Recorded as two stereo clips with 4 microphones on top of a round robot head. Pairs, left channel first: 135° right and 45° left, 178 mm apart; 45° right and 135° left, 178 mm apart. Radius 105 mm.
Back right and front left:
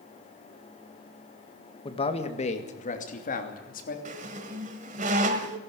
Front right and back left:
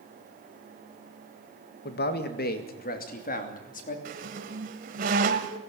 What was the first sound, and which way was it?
A man speaking, 70° right.